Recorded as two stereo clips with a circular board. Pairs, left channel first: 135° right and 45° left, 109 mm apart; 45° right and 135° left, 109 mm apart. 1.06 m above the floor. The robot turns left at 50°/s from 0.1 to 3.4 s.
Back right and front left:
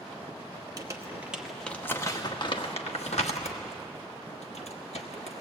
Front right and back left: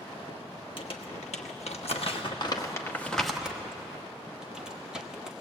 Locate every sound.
0.8 s crumpling: 10° right, 1.3 m; by 5.4 s 140° right, 1.3 m